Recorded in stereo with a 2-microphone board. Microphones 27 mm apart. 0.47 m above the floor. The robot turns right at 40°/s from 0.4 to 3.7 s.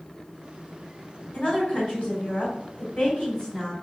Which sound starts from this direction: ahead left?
A woman speaking, at 1.3 s.